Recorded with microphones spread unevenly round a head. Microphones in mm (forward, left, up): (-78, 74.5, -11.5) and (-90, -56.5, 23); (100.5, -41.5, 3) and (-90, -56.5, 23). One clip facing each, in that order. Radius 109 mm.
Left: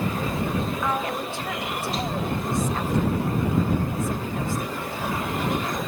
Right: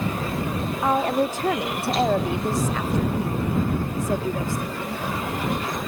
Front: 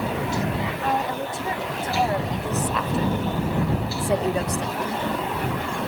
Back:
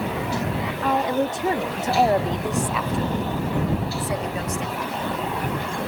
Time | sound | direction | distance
0.8 | a woman speaking | 155° right | ?